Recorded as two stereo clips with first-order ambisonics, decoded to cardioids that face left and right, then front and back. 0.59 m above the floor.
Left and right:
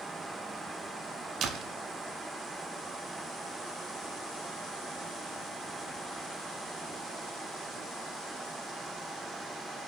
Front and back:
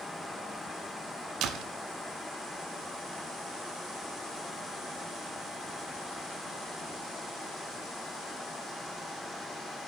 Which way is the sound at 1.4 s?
140° right.